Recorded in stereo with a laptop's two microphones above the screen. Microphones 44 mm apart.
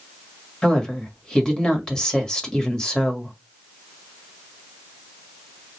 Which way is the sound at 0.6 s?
15° left (ahead or behind).